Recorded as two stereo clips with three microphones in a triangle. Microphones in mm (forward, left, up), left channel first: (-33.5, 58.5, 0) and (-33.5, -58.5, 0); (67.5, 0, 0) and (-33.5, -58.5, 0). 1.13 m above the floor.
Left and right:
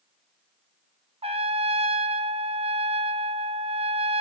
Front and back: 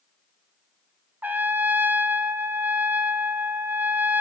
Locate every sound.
1.2 s a trumpet: 75° right, 0.7 m